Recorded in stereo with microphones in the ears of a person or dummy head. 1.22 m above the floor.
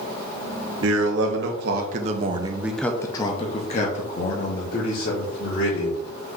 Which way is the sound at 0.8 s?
70° right (ahead or behind).